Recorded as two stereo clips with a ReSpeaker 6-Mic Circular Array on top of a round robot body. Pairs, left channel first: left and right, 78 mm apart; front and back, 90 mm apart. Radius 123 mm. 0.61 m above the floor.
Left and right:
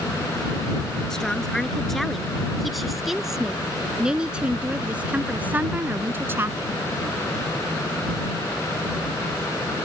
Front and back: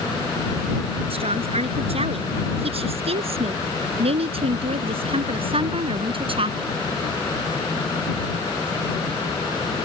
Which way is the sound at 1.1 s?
175° left.